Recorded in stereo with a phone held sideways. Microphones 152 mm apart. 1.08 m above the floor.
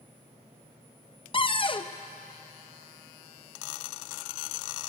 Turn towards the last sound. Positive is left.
turn(degrees=35)  # may be behind; listen again after turning